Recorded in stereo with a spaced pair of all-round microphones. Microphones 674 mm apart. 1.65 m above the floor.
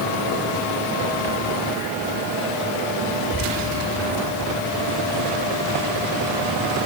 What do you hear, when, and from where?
Only background noise.